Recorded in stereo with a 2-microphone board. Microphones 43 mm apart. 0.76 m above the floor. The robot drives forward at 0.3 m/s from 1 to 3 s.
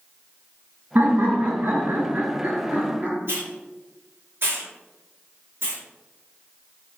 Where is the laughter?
60° right (ahead or behind), 0.8 m; by 3.2 s 45° right (ahead or behind), 1.0 m.